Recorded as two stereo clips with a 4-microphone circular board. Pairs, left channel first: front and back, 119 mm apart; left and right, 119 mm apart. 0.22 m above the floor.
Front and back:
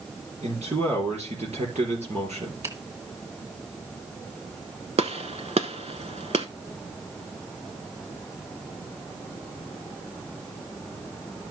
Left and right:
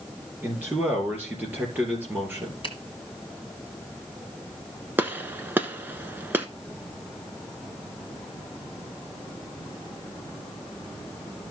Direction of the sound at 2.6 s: 125° left.